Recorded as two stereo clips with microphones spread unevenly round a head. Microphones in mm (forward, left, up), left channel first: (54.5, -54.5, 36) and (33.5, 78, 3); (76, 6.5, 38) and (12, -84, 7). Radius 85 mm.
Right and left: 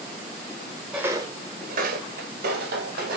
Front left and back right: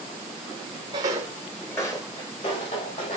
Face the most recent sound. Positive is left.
turn(degrees=85)